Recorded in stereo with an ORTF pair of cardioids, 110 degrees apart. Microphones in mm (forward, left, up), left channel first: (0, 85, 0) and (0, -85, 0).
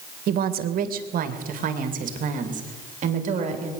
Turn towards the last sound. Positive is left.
turn(degrees=-45)